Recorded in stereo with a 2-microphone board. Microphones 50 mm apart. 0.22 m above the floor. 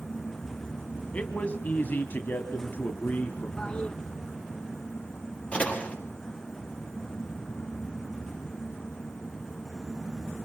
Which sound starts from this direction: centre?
A toilet flushing, at 3.6 s.